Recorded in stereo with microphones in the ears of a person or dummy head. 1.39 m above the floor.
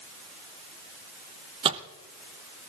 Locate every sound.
1.6 s a microwave: 30° right (ahead or behind), 0.6 m